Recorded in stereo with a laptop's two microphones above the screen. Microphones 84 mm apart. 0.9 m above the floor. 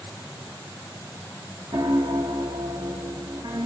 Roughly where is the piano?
Right.